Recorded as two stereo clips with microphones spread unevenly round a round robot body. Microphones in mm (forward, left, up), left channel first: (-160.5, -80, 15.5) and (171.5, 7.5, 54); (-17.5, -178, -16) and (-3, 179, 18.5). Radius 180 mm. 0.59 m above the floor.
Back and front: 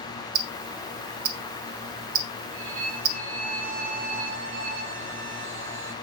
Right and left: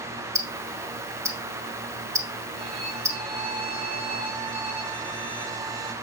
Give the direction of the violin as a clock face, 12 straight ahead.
10 o'clock.